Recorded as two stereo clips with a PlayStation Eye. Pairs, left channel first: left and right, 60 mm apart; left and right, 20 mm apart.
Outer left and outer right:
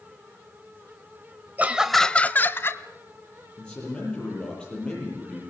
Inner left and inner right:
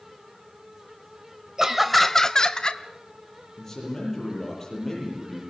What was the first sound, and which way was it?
Laughter, 30° right (ahead or behind).